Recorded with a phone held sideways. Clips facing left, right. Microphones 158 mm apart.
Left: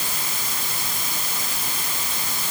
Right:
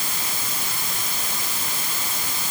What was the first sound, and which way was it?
Only background noise.